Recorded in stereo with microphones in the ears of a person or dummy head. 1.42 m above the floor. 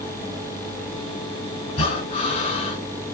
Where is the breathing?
30° left (ahead or behind), 1.2 m.